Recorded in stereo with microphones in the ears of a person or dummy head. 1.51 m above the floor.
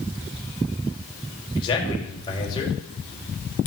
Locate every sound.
1.6 s a man speaking: 25° left (ahead or behind), 4 m